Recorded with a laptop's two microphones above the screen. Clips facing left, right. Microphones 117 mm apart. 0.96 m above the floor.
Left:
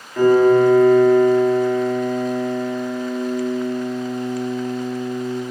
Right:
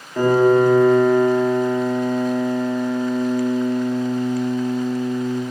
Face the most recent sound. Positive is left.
turn(degrees=-10)  # may be behind; listen again after turning